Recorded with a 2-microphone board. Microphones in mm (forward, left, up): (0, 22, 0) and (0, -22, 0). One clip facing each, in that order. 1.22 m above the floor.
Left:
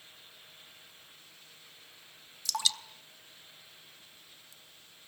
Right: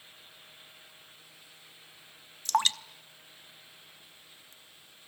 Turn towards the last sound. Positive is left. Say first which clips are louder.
# right 6 dB
turn(degrees=-45)  # may be behind; listen again after turning